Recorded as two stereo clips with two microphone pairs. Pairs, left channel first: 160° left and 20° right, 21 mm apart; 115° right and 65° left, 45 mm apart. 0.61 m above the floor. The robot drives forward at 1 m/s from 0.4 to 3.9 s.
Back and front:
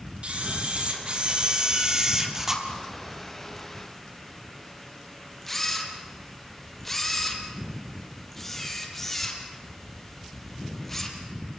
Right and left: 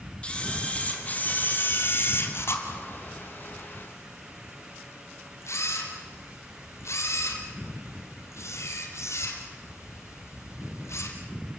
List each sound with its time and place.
0.2 s a camera shutter: 50° right, 3.5 m; by 11.2 s 120° right, 3 m